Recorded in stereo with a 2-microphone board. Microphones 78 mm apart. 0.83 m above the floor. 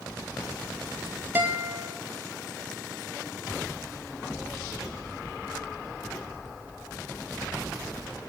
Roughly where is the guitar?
Right.